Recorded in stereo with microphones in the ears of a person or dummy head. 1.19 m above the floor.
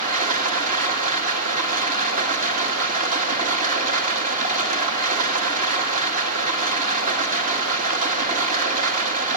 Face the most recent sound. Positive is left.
turn(degrees=-50)  # may be behind; listen again after turning